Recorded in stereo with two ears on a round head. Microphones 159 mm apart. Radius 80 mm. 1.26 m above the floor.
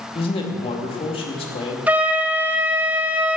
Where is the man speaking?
30° left (ahead or behind), 2 m.